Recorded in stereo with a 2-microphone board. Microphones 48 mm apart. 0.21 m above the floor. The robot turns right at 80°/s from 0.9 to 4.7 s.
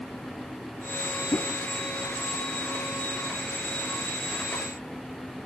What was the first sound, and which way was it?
A whoosh, 65° left (ahead or behind).